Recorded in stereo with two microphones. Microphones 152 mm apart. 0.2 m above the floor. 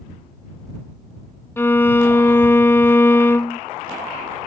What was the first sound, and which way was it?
A violin, 15° left (ahead or behind).